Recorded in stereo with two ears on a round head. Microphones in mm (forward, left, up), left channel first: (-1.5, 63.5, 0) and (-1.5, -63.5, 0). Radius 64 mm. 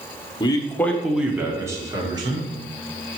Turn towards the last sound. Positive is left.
turn(degrees=-35)  # may be behind; listen again after turning